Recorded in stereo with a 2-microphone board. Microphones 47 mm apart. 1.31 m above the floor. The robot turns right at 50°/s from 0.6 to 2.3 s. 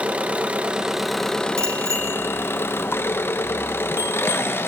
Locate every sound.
0.0 s an engine running: 25° right, 1.2 m; by 4.7 s 60° left, 1.2 m
1.6 s a bicycle bell: 85° right, 4.5 m; by 4.4 s 50° right (ahead or behind), 4.5 m